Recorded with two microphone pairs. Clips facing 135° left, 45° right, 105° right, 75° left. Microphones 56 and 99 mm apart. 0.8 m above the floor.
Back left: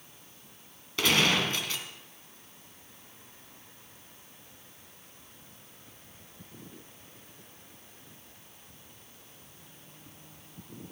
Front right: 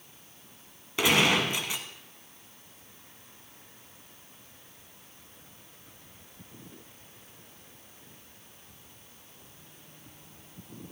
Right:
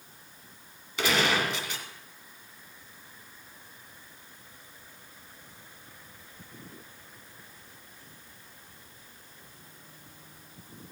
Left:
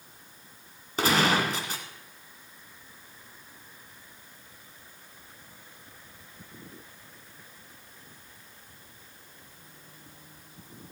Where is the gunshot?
25° left, 1.9 m.